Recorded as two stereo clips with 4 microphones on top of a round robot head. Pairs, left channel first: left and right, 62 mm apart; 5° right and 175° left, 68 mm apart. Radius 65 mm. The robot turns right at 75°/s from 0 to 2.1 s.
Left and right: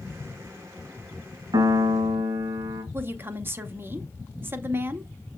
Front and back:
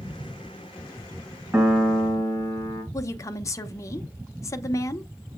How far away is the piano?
About 2.5 m.